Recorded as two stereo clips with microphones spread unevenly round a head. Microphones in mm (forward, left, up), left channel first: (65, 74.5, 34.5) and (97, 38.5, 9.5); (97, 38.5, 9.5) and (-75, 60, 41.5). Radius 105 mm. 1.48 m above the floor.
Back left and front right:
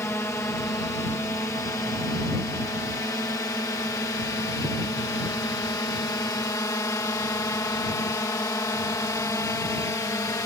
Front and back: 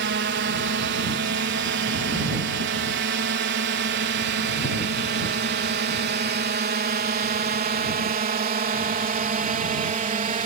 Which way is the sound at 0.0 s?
170° right.